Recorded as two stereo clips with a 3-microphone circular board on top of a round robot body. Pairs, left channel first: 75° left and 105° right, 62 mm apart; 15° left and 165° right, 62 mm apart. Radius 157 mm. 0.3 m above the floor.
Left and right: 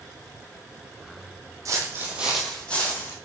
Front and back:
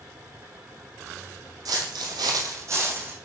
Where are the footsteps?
145° right, 1.1 m; by 3.1 s 135° left, 1.5 m.